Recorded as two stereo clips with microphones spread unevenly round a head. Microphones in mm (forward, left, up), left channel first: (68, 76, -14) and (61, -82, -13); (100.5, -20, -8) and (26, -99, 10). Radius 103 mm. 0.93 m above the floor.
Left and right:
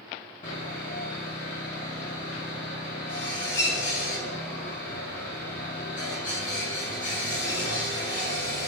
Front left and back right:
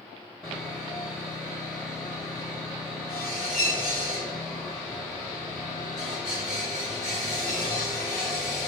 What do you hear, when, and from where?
0.4 s sawing: 135° left, 1.0 m